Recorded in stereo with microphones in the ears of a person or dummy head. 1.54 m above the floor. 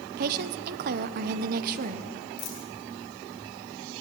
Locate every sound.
0.2 s a woman speaking: 45° right (ahead or behind), 0.7 m
2.4 s a dropped coin: 55° left (ahead or behind), 3 m